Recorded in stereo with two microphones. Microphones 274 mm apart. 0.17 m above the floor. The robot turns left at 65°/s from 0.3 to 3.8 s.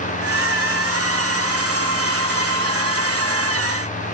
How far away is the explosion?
No explosion in this recording.